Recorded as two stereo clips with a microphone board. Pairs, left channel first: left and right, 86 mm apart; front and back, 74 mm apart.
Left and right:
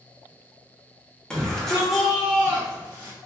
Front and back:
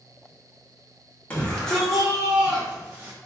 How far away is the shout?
About 1.2 m.